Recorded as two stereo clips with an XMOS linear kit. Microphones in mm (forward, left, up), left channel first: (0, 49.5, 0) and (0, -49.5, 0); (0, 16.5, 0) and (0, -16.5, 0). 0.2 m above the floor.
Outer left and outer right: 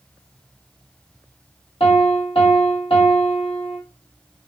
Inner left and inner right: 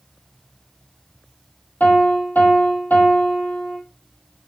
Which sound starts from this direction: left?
A piano, at 1.8 s.